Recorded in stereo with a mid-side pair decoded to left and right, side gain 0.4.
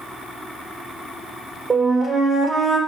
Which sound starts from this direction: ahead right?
A flute, at 1.7 s.